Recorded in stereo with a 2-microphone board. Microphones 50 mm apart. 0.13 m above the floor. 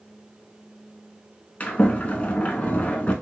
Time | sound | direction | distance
1.6 | a sliding door | 30° left (ahead or behind) | 0.6 m